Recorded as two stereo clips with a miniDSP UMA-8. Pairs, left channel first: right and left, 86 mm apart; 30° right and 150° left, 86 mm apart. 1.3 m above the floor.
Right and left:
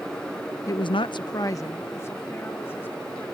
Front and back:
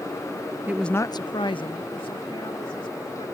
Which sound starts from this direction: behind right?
A woman speaking, at 0.7 s.